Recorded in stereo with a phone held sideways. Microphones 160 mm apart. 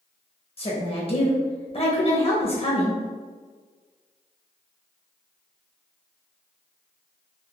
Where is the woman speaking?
35° left (ahead or behind), 0.9 m.